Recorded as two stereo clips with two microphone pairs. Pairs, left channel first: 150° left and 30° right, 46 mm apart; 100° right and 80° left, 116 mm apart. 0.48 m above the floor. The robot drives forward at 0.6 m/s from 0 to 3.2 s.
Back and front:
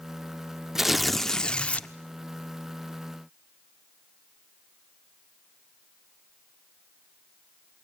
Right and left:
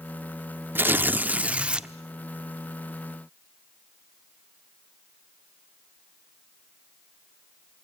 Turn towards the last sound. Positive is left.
turn(degrees=170)